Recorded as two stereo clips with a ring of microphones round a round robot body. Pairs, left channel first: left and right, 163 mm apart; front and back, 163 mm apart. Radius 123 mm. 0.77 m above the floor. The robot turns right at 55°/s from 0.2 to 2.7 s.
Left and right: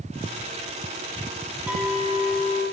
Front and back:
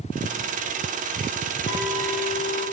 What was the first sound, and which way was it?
A clink, 10° right.